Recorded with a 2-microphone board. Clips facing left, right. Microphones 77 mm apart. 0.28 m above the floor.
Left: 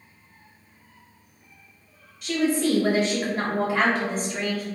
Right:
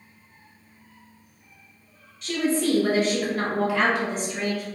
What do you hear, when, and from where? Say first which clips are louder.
2.2 s a woman speaking: left 1 dB; centre (ahead or behind), 1.0 m; by 4.7 s 45° left (ahead or behind), 1.4 m